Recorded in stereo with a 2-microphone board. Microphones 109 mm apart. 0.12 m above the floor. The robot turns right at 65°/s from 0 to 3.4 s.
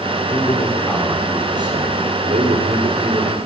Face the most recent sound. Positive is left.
turn(degrees=-20)